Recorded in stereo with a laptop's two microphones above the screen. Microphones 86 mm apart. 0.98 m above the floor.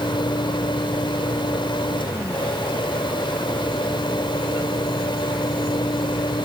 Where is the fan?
65° left (ahead or behind).